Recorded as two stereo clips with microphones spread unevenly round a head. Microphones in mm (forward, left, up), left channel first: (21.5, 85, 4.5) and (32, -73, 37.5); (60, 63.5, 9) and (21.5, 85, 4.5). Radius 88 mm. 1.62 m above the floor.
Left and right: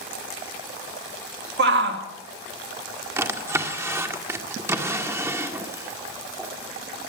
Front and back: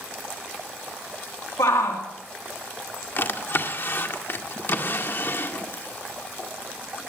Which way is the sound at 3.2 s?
20° right.